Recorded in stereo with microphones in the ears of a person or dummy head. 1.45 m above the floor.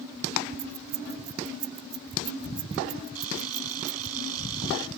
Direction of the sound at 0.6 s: 50° right (ahead or behind).